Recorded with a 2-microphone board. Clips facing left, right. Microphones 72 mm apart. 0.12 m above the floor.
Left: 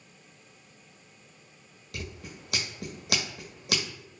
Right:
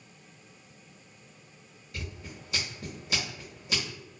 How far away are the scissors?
About 1.1 m.